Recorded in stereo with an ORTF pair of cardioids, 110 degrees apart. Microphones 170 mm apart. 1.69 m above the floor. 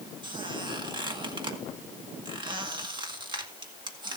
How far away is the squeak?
About 2.5 m.